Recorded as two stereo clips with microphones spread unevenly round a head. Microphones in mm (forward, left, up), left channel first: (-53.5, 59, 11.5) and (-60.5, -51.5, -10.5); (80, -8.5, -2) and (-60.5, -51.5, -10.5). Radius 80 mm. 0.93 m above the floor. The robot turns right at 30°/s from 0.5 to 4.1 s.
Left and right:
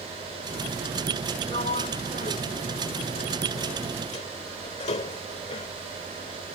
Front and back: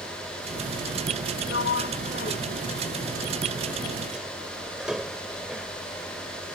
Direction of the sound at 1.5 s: 30° left.